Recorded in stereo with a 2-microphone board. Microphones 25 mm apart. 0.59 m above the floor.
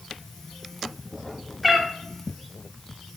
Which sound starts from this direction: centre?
A cat meowing, at 1.6 s.